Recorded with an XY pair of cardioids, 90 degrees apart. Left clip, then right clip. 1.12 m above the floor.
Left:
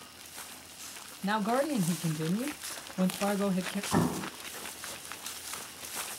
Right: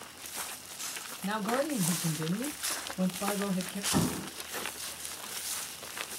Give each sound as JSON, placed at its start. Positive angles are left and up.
{"t": 1.2, "sound": "a man speaking", "azimuth_deg": 30, "distance_m": 0.8}
{"t": 3.9, "sound": "an explosion", "azimuth_deg": 45, "distance_m": 0.7}